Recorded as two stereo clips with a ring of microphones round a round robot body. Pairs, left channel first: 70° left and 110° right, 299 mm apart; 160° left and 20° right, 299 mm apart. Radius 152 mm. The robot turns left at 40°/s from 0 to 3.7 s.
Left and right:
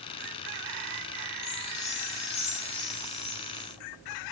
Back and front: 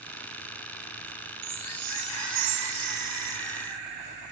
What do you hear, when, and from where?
1.4 s a chime: 35° left, 2.5 m; by 3.8 s 55° right, 2.5 m